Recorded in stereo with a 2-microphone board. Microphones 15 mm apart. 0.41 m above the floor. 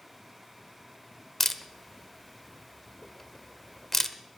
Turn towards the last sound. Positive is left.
turn(degrees=15)  # may be behind; listen again after turning